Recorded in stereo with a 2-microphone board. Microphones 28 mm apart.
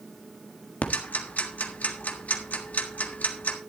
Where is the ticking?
75° left (ahead or behind), 1.5 m.